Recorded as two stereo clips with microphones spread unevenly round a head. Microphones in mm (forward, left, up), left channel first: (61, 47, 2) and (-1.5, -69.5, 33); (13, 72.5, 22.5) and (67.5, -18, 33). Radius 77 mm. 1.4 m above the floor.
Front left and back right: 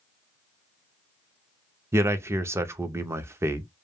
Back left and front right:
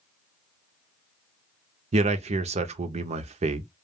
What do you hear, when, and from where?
1.9 s a man speaking: 40° right, 0.5 m